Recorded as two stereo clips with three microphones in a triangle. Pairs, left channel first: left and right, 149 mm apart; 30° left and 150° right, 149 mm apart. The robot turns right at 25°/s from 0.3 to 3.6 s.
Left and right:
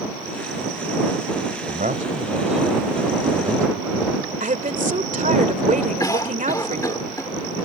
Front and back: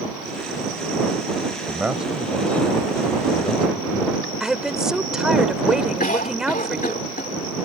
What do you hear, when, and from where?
1.7 s a man speaking: 75° right; by 4.3 s 25° right
4.4 s a woman speaking: 65° right
6.0 s a cough: 25° left